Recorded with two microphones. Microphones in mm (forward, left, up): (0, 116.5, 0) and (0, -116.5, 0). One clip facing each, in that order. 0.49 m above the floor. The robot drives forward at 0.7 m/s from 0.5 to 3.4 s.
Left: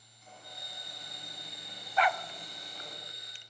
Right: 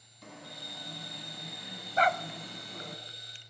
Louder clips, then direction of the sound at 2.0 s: Right 1 dB; 40° right (ahead or behind).